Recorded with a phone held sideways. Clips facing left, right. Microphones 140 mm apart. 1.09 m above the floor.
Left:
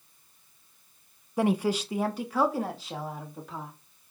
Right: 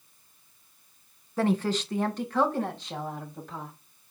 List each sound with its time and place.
1.4 s a woman speaking: 15° left (ahead or behind), 0.8 m; by 3.7 s 5° left (ahead or behind), 3 m